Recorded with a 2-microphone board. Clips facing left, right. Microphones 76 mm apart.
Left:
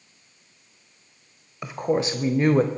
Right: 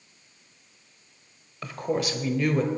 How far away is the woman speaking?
About 1.1 m.